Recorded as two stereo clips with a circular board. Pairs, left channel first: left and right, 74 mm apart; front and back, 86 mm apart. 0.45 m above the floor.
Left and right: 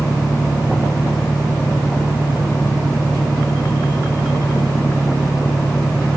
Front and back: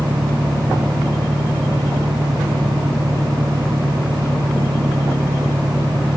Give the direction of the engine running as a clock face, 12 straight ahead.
7 o'clock.